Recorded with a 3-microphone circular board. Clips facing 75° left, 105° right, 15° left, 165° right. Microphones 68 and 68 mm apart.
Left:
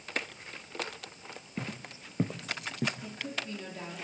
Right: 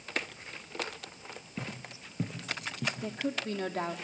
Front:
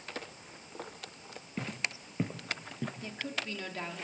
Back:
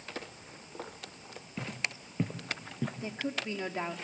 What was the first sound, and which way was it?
Footsteps, 40° left.